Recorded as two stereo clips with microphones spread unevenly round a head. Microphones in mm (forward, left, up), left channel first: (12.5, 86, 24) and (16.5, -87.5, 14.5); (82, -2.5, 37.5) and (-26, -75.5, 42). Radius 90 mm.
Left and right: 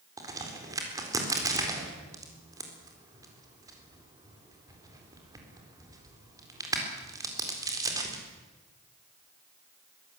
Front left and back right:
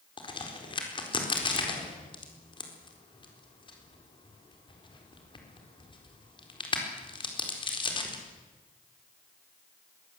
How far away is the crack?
About 4 m.